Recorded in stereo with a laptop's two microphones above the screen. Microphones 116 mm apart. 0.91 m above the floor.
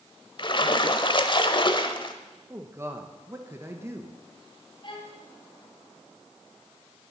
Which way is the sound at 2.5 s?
20° right (ahead or behind).